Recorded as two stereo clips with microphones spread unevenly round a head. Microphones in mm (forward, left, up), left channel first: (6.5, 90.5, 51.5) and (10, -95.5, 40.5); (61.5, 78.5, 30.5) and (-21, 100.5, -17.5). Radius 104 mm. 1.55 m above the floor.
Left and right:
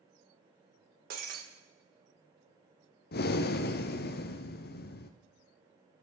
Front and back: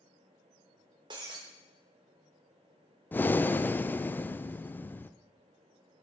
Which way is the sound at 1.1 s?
120° right.